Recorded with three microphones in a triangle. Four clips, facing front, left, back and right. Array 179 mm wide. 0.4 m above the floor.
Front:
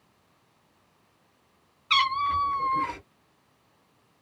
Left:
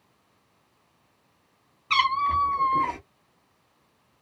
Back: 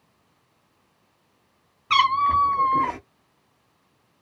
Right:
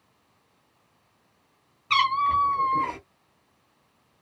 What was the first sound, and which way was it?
A cat meowing, straight behind.